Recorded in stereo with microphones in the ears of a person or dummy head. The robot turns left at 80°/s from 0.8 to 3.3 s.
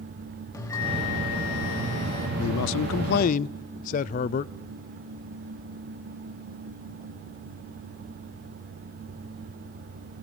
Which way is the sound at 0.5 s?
160° left.